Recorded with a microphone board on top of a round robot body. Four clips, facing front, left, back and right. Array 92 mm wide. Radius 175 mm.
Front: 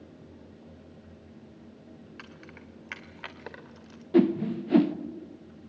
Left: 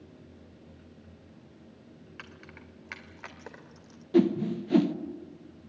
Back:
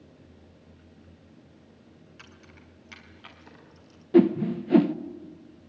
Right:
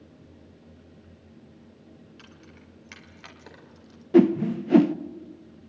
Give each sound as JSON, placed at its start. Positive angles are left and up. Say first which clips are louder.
{"t": 2.2, "sound": "keys jangling", "louder": "left 2 dB, front 4 dB", "azimuth_deg": 50, "distance_m": 2.5}
{"t": 4.1, "sound": "a whoosh", "louder": "right 5 dB, back 3 dB", "azimuth_deg": -110, "distance_m": 1.1}